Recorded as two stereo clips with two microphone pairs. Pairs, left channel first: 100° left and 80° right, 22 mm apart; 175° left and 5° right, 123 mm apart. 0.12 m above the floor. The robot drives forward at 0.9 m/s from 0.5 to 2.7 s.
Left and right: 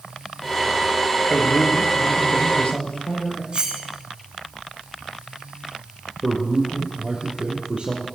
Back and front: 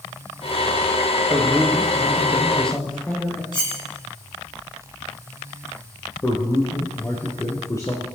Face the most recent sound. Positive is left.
turn(degrees=-120)